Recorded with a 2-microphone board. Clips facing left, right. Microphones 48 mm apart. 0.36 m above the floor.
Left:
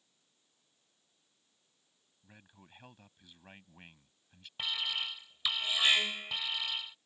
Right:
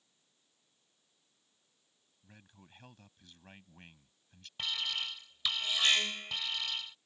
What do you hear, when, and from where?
2.2 s a man speaking: 10° left (ahead or behind)
4.6 s an alarm: 10° left (ahead or behind)